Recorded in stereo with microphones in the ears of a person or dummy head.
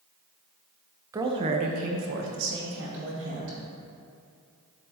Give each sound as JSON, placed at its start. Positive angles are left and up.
{"t": 1.1, "sound": "a woman speaking", "side_deg": -15, "distance_m": 0.8}